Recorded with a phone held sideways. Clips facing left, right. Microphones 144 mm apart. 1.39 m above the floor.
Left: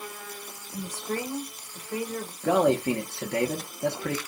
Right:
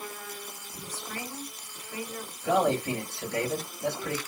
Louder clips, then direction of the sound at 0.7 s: Left 9 dB; 70° left (ahead or behind).